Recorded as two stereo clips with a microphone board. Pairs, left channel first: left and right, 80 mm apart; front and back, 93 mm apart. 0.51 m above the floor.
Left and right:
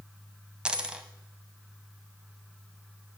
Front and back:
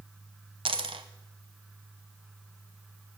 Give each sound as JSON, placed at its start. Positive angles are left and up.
{"t": 0.7, "sound": "a dropped coin", "azimuth_deg": -170, "distance_m": 0.7}